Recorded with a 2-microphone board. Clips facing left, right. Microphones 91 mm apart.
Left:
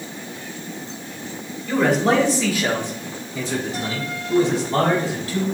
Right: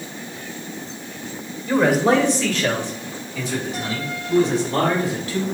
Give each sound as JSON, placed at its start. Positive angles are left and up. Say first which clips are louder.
{"t": 1.7, "sound": "a man speaking", "louder": "right 1 dB", "side_deg": -15, "distance_m": 1.5}